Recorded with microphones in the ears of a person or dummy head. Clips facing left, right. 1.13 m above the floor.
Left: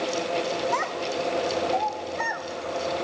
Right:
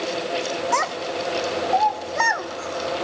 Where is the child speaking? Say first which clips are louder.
Right 2 dB; 55° right (ahead or behind), 2.5 m; by 3.0 s 80° right, 2.5 m.